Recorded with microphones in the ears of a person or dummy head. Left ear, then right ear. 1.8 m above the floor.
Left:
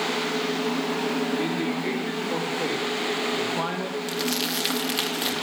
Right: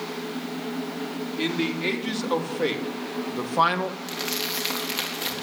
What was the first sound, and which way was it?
A man speaking, 55° right (ahead or behind).